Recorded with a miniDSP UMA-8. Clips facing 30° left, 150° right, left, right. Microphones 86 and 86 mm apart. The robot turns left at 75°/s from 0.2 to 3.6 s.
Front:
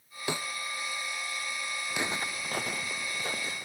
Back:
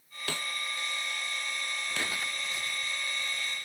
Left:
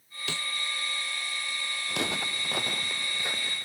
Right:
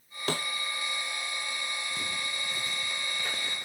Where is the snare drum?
40° right; by 0.5 s 55° right.